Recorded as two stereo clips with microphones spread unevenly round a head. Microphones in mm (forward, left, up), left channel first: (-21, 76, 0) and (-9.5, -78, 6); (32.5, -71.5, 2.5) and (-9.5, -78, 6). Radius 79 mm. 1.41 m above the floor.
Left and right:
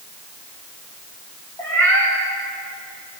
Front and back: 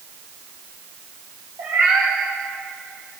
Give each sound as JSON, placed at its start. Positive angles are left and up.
{"t": 1.6, "sound": "a cat meowing", "azimuth_deg": 165, "distance_m": 9.5}